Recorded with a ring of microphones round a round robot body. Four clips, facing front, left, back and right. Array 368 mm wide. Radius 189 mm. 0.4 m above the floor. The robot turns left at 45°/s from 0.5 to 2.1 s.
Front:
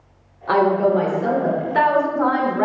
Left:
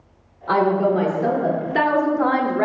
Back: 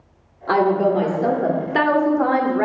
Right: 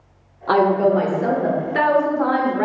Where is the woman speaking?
120° right, 1.2 m; by 2.6 s 165° left, 1.2 m.